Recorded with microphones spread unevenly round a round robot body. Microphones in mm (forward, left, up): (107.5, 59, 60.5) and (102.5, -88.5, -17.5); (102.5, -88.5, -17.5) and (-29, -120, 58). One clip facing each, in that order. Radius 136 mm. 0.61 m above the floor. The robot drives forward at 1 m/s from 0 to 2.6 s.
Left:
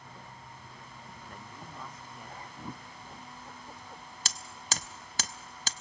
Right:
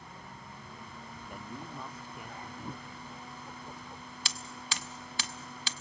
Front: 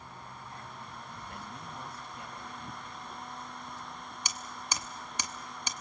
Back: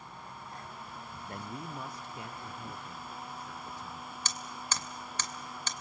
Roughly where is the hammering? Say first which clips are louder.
Left 2 dB, even; ahead left.